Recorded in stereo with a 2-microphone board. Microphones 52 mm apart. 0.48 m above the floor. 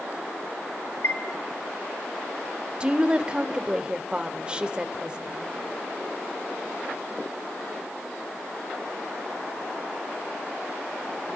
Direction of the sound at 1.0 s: 55° left (ahead or behind).